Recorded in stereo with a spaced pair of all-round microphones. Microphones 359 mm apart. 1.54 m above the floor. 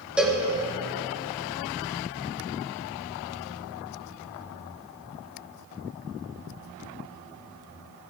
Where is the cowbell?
5° right (ahead or behind), 2.5 m.